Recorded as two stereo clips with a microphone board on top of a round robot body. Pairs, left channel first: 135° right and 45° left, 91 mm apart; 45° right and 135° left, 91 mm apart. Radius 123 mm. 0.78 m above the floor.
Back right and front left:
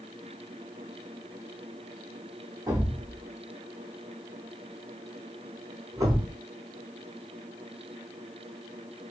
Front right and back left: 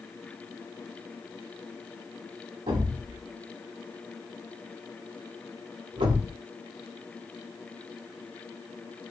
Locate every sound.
2.7 s a thud: 100° left, 0.7 m